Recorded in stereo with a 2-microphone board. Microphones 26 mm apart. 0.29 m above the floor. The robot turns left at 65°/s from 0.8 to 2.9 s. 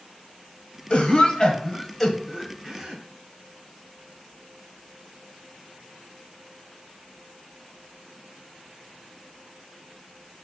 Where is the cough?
45° left (ahead or behind), 1.6 m; by 3.0 s 30° right (ahead or behind), 1.6 m.